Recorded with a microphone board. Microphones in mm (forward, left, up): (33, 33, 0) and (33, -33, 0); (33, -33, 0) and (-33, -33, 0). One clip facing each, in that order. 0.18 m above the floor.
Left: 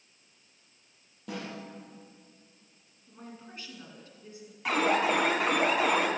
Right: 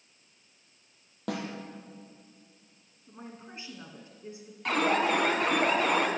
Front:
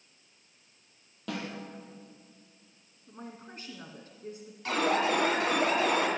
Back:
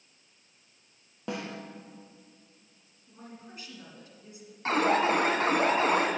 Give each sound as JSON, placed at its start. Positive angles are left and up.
{"t": 1.3, "sound": "a snare drum", "azimuth_deg": -115, "distance_m": 3.5}
{"t": 3.1, "sound": "a woman speaking", "azimuth_deg": -30, "distance_m": 1.7}
{"t": 4.7, "sound": "an alarm", "azimuth_deg": 175, "distance_m": 2.5}